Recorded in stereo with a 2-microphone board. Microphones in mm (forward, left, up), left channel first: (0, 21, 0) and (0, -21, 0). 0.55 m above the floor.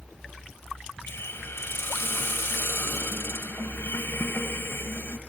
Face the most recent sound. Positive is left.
turn(degrees=80)